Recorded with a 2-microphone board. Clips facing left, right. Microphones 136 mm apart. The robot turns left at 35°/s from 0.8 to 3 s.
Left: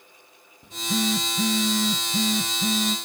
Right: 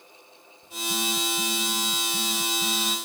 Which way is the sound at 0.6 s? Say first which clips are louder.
Left 5 dB; 115° left.